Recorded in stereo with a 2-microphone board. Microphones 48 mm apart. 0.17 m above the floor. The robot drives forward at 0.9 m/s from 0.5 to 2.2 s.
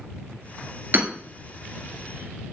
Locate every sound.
0.9 s hammering: 45° right (ahead or behind), 1.5 m